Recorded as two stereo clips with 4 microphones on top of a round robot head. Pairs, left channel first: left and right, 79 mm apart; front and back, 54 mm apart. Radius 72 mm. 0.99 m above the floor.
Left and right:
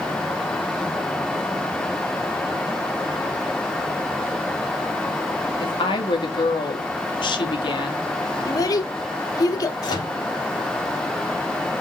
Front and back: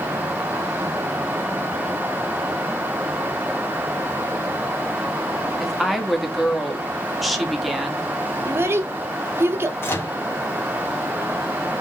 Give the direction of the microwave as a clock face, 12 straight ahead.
11 o'clock.